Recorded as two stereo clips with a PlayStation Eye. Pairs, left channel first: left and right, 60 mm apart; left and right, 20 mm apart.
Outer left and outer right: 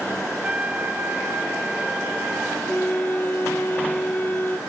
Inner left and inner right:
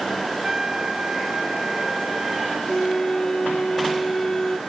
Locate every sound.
0.4 s a trumpet: 20° right (ahead or behind)
2.7 s a flute: 30° left (ahead or behind)